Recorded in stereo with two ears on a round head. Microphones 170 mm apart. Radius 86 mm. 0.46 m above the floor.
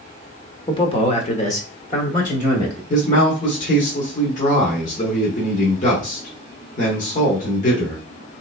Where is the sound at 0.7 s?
25° left (ahead or behind), 0.9 m; by 2.8 s 40° left (ahead or behind), 1.5 m.